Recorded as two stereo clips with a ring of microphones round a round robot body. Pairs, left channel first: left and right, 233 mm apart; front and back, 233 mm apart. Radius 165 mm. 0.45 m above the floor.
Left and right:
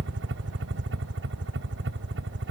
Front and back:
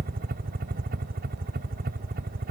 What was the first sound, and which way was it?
A helicopter, 125° right.